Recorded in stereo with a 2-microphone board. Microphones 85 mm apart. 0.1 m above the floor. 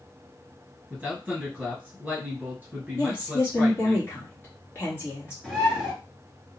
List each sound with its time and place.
0.9 s a man speaking: 10° right (ahead or behind), 1.5 m
3.0 s a woman speaking: 30° left (ahead or behind), 1.8 m
5.4 s a bird: 5° left (ahead or behind), 1.6 m